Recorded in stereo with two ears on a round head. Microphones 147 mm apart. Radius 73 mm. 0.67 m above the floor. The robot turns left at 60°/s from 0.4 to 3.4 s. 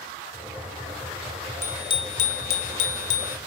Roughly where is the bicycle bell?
Behind.